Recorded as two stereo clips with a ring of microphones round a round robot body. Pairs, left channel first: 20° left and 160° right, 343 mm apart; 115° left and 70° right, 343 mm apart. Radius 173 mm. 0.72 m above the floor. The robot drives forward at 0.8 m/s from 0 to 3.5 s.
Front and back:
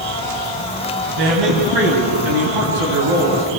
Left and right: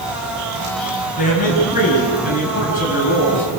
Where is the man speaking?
Straight behind, 5.5 m.